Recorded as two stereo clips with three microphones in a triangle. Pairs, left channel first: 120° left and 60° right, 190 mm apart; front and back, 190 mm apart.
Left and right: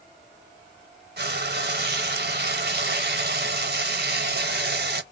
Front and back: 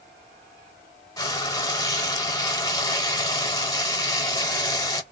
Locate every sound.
1.2 s frying: 70° right, 0.7 m